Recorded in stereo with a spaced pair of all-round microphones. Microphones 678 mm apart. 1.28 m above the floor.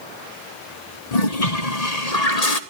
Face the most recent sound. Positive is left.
turn(degrees=60)  # may be behind; listen again after turning